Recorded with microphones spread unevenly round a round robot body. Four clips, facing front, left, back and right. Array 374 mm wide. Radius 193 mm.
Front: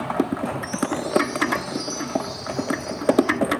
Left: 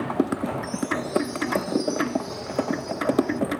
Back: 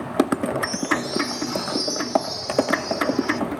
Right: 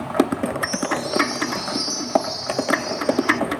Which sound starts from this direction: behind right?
A chime, at 0.6 s.